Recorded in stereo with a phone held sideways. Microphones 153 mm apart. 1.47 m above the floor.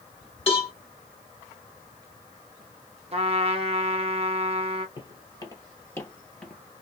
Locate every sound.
0.5 s a cowbell: 40° left (ahead or behind), 1.8 m
3.1 s a trumpet: 40° right (ahead or behind), 0.8 m
5.0 s footsteps: 35° left (ahead or behind), 1.9 m; by 6.6 s 5° left (ahead or behind), 1.5 m